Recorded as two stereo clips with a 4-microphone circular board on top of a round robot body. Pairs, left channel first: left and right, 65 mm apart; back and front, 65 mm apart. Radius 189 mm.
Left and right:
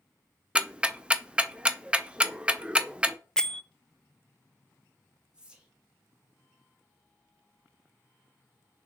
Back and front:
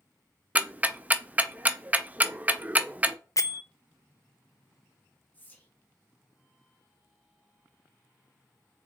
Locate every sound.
0.6 s ticking: 35° right, 0.7 m
3.4 s a bell: 170° left, 0.6 m
5.3 s whispering: 145° right, 1.2 m